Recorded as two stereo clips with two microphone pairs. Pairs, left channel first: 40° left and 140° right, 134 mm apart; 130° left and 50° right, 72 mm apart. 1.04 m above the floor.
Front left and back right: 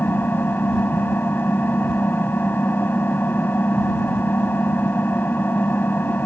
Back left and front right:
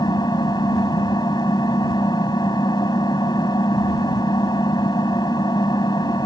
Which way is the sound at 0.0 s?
115° left.